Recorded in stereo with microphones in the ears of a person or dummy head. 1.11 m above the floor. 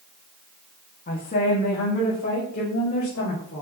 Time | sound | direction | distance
1.1 | a woman speaking | 35° left (ahead or behind) | 1.6 m